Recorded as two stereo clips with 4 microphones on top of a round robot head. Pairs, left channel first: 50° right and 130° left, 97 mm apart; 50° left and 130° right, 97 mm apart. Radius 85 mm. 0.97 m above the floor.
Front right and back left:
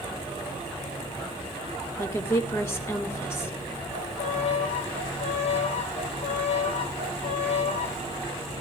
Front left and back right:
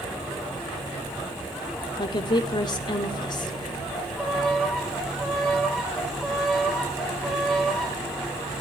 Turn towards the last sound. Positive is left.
turn(degrees=-40)